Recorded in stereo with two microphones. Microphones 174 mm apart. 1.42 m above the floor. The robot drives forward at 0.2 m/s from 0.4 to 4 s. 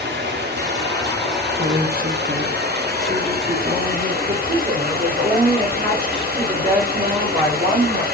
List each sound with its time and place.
0.0 s running water: 75° right (ahead or behind), 1.0 m; by 8.1 s 60° right (ahead or behind), 1.1 m
1.6 s a woman speaking: 65° right (ahead or behind), 0.6 m; by 4.1 s 35° right (ahead or behind), 0.9 m
4.2 s a woman speaking: 30° right (ahead or behind), 2.5 m